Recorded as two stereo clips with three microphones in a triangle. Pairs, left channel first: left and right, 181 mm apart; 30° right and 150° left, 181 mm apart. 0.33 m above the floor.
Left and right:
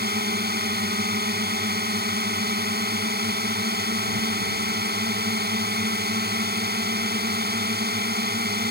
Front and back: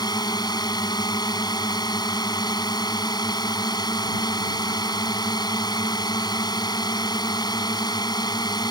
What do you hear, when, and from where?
0.0 s a drone: 95° right